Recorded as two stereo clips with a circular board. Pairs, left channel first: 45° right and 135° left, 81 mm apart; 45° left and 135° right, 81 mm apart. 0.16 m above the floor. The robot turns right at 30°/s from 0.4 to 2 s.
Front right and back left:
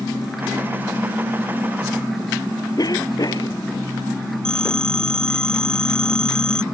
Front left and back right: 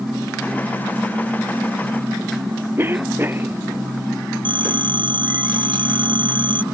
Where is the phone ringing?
125° right.